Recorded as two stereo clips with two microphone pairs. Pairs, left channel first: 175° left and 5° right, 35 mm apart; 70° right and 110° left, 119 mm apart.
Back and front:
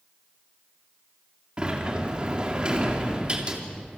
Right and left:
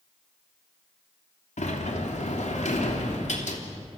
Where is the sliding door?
65° right, 3 m.